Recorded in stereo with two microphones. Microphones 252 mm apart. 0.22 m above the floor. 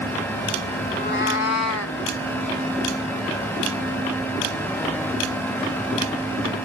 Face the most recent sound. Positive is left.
turn(degrees=65)  # may be behind; listen again after turning